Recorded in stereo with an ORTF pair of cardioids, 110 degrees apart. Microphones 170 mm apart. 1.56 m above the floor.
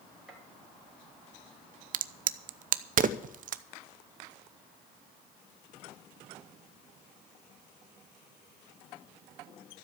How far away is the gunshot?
About 4.5 m.